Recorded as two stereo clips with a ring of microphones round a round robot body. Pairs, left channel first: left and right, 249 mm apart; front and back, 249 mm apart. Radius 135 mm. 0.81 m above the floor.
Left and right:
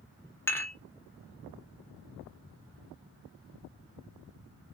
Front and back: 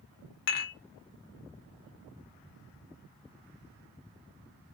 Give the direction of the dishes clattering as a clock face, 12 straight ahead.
12 o'clock.